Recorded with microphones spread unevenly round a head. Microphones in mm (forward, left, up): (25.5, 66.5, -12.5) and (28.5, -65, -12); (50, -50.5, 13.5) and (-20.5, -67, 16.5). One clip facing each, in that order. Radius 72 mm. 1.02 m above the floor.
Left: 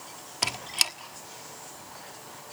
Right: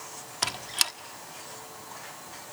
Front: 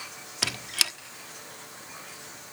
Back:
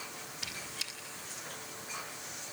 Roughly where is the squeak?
Ahead.